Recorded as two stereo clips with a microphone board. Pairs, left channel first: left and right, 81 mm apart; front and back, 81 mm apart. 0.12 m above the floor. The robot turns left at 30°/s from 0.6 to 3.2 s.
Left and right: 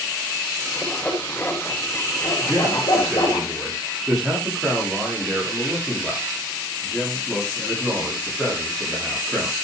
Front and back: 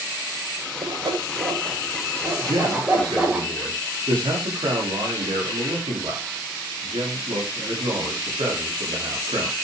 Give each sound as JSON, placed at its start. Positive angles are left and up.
{"t": 0.8, "sound": "sawing", "azimuth_deg": 175, "distance_m": 7.0}
{"t": 2.4, "sound": "a man speaking", "azimuth_deg": -160, "distance_m": 9.5}